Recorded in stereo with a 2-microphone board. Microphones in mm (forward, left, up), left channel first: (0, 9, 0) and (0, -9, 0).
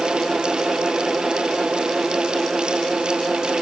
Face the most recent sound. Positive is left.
No sound to turn to.